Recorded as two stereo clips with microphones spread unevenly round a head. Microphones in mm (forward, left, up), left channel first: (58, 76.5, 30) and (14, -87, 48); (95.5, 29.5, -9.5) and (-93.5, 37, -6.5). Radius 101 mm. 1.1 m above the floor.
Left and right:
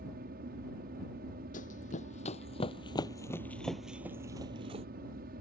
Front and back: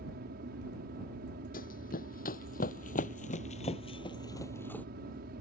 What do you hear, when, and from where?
0.0 s an aircraft: 140° right
1.5 s running footsteps: 35° left; by 4.9 s 85° right